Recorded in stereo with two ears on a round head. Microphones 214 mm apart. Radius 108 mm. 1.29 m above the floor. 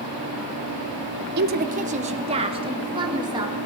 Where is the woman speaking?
40° right (ahead or behind), 0.7 m; by 3.5 s 15° right (ahead or behind), 2.5 m.